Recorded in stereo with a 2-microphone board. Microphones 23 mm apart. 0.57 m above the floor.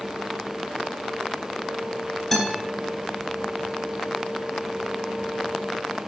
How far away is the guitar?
About 4.5 m.